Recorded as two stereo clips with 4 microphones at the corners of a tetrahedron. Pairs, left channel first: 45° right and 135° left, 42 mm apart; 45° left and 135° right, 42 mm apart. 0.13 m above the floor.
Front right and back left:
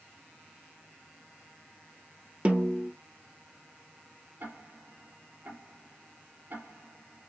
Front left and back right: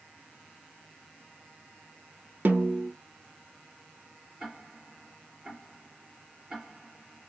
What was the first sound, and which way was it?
A snare drum, 175° right.